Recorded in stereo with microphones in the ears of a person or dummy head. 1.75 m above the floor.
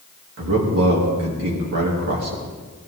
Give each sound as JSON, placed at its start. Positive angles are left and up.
{"t": 0.4, "sound": "a man speaking", "side_deg": -65, "distance_m": 3.0}